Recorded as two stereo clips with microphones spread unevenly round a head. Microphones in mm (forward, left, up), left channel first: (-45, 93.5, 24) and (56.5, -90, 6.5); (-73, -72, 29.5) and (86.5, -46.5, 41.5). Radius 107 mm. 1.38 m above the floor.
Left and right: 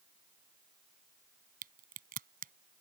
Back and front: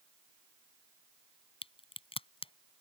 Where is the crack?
115° right.